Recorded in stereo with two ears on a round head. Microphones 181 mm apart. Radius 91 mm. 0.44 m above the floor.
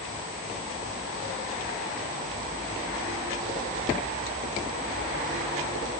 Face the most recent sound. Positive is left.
No sound to turn to.